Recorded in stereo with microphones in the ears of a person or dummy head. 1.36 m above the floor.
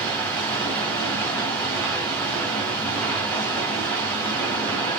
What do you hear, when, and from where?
0.0 s running water: 5° left (ahead or behind), 4 m